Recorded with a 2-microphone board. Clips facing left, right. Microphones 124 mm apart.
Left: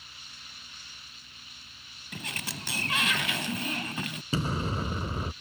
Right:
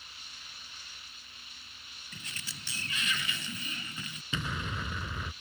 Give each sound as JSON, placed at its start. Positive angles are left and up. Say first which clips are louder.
{"t": 2.1, "sound": "a sliding door", "louder": "left 10 dB", "side_deg": 75}
{"t": 4.3, "sound": "an explosion", "louder": "left 6 dB", "side_deg": 35}